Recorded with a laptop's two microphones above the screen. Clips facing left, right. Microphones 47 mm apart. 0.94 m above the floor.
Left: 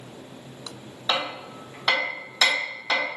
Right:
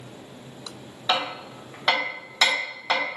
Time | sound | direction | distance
1.1 | hammering | 15° right (ahead or behind) | 1.0 m